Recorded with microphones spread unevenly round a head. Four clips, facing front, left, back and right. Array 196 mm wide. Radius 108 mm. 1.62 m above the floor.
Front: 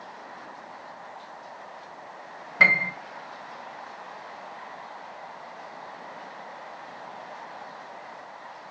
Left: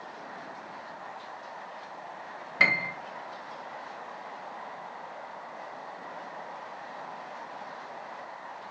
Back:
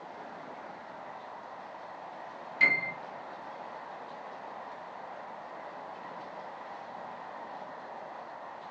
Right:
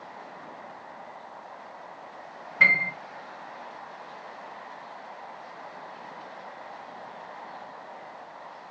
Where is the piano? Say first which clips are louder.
Right 3 dB, front 7 dB; 20° left, 1.9 m.